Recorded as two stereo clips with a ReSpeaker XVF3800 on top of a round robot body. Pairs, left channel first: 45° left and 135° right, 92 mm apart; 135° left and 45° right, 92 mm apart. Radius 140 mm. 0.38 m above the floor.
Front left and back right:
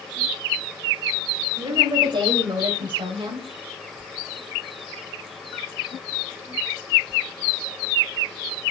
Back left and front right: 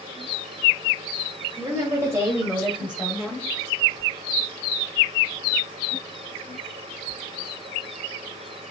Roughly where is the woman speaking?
Right.